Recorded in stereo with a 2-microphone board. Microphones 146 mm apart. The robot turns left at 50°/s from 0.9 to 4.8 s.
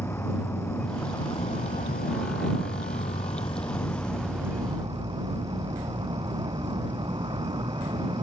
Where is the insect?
165° left; by 8.2 s 30° right.